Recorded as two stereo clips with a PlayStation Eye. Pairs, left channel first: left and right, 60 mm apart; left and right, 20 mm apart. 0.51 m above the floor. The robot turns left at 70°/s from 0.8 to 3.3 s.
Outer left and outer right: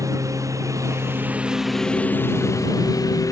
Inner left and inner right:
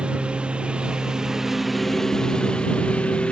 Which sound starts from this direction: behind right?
A lawn mower, at 0.0 s.